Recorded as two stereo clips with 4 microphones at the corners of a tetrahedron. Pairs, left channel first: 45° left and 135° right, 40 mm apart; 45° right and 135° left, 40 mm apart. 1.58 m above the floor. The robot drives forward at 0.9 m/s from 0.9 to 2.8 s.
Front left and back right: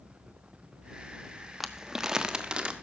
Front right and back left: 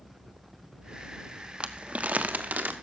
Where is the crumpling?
140° left, 1.1 m; by 2.7 s 165° left, 1.7 m.